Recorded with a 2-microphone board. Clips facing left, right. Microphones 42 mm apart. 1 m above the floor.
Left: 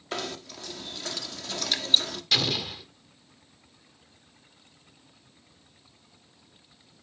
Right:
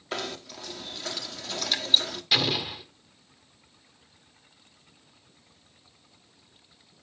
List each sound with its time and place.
0.1 s knocking: 5° right (ahead or behind), 1.3 m
2.3 s an explosion: 15° right (ahead or behind), 1.4 m